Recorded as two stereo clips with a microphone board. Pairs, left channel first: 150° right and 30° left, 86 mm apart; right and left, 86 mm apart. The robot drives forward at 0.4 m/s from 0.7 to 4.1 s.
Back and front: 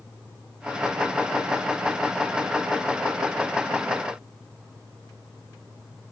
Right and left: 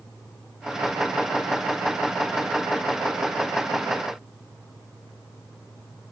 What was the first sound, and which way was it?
Only background noise.